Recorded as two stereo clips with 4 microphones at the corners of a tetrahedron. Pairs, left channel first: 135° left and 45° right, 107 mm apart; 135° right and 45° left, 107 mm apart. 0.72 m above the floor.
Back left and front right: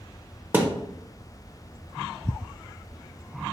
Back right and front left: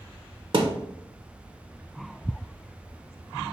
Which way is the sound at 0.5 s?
25° left.